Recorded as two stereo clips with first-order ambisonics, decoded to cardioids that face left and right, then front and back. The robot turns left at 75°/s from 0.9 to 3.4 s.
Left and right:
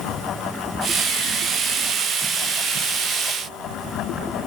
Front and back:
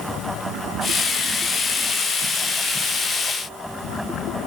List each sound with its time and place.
Only background noise.